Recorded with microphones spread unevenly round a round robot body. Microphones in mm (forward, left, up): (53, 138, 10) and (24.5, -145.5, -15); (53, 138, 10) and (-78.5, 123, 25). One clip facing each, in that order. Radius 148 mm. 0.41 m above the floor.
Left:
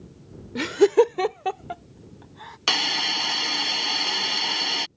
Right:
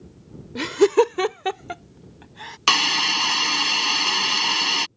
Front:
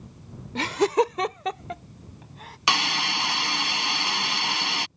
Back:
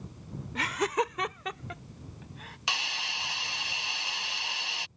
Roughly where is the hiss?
Ahead.